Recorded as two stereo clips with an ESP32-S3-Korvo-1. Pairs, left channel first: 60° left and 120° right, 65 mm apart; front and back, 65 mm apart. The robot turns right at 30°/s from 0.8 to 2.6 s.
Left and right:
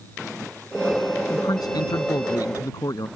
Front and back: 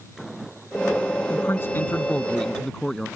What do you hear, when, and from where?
1.3 s a man speaking: 40° left; by 3.1 s 80° left